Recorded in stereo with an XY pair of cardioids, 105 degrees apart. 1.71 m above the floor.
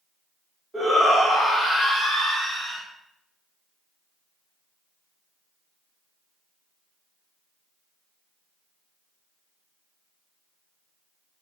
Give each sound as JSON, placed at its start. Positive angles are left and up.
{"t": 0.7, "sound": "a shout", "azimuth_deg": -10, "distance_m": 1.2}